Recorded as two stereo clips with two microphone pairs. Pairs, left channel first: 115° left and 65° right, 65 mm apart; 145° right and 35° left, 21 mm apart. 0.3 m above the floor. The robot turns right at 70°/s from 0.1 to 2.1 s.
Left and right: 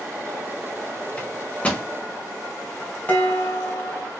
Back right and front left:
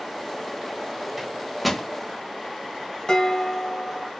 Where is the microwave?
95° left, 0.9 m; by 1.9 s 145° left, 0.9 m.